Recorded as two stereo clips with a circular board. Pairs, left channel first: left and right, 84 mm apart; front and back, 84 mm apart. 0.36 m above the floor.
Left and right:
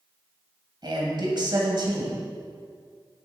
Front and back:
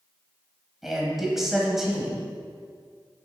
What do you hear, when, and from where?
0.8 s a man speaking: 95° right, 1.9 m